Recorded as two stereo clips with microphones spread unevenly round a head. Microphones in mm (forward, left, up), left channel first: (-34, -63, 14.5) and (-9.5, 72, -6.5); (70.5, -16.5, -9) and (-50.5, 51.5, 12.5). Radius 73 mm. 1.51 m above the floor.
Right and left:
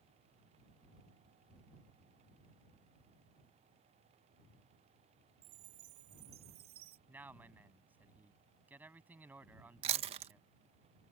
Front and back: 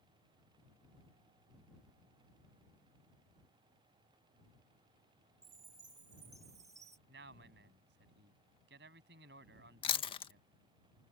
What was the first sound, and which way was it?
A chime, 85° left.